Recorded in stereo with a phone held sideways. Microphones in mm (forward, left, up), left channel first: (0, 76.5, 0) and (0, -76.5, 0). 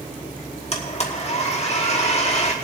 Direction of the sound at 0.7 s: 45° left (ahead or behind).